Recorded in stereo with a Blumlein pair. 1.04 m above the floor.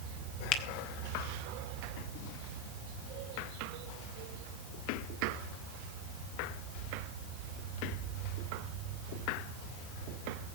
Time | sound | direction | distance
0.5 | a finger snap | 35° left | 2.5 m